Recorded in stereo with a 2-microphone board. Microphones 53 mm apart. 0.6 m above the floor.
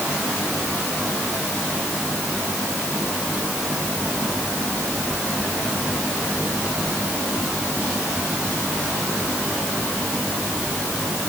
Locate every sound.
Only background noise.